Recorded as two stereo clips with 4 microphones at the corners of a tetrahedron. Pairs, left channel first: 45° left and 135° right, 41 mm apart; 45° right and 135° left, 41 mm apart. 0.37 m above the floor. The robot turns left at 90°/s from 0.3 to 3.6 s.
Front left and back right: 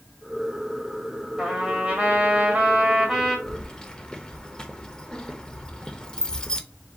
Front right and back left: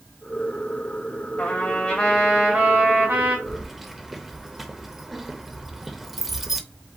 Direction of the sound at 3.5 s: 70° left.